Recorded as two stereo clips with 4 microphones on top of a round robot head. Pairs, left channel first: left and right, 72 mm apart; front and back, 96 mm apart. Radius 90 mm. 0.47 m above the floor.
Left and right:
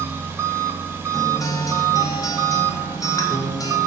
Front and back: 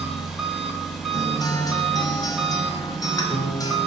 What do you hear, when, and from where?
0.0 s an engine running: 95° right, 0.8 m
1.1 s a guitar: 50° left, 0.6 m